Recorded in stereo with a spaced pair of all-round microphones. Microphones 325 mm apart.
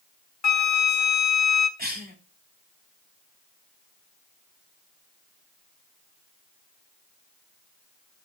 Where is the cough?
30° right (ahead or behind), 3.5 m.